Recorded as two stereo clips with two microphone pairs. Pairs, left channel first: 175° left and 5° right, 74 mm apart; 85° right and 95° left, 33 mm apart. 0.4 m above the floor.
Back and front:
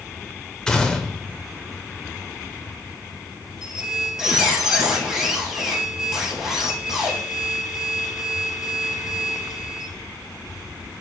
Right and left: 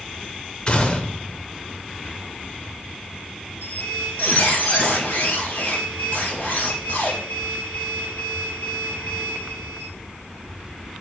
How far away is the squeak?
About 3 m.